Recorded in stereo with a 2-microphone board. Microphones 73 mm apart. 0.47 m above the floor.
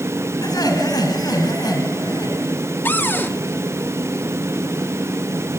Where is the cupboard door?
25° left (ahead or behind), 1.2 m.